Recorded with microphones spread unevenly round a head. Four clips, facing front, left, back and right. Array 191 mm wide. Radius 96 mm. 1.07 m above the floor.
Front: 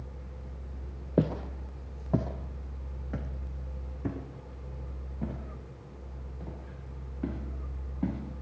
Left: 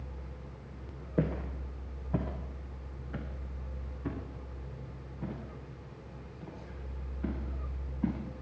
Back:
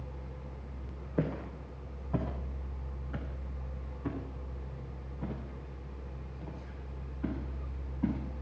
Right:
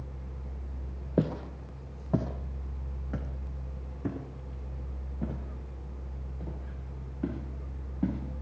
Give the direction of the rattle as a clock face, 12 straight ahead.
No rattle in this recording.